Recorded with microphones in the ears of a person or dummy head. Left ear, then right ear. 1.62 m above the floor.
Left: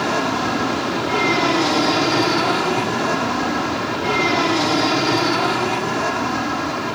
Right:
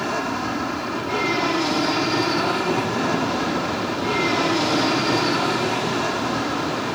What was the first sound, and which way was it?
An aircraft, 5° left (ahead or behind).